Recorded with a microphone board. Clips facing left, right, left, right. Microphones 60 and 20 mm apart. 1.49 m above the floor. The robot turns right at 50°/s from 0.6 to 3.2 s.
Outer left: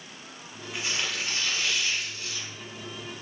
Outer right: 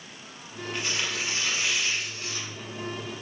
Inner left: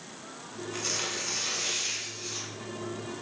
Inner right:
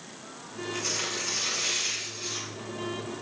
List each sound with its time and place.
0.7 s tearing paper: 165° left, 1.5 m; by 2.7 s 95° right, 1.5 m